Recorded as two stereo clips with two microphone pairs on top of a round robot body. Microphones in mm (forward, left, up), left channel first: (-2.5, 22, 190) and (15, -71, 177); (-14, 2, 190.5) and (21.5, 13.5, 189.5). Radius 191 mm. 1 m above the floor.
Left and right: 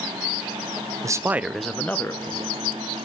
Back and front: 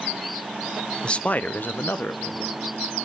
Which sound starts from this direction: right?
A man speaking, at 1.0 s.